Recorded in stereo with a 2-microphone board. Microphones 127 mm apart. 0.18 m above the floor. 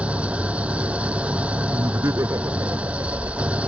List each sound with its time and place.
0.0 s an engine running: 10° right (ahead or behind)
1.7 s laughter: 25° right (ahead or behind)